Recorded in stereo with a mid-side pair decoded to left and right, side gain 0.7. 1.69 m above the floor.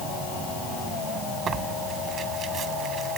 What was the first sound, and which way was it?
Tearing paper, 35° right.